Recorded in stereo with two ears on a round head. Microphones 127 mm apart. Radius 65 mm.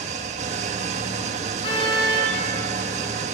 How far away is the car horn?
About 7 m.